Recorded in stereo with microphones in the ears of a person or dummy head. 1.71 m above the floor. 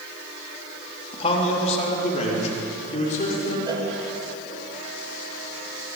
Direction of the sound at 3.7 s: 25° right (ahead or behind).